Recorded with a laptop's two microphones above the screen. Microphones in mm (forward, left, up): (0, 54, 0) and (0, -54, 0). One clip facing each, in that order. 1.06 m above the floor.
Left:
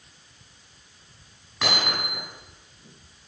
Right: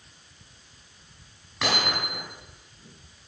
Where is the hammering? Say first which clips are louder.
Even; centre (ahead or behind), 8.5 m.